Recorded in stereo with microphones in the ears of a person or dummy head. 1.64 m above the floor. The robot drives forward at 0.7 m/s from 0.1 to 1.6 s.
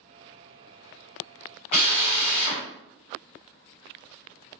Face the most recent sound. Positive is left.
turn(degrees=35)  # may be behind; listen again after turning